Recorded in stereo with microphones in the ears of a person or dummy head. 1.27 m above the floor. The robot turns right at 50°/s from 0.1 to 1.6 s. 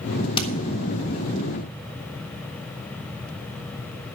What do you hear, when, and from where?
0.4 s hammering: 30° left (ahead or behind), 1.4 m; by 0.5 s 35° left (ahead or behind), 1.4 m